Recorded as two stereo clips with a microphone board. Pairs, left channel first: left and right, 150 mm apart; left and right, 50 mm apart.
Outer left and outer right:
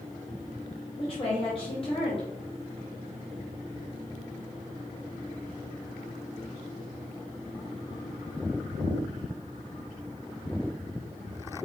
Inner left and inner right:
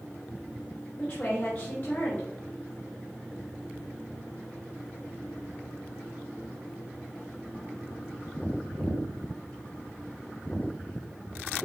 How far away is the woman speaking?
About 2 m.